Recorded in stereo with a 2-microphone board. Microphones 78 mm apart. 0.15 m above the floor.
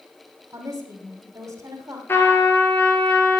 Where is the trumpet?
30° left (ahead or behind), 3 m.